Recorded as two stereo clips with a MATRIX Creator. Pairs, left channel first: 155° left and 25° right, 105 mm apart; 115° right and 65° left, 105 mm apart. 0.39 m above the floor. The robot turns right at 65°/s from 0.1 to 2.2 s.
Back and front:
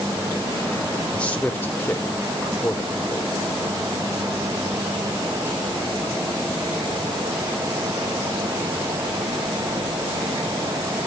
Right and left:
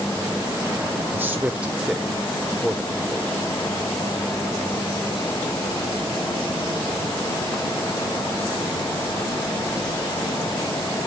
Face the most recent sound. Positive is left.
turn(degrees=165)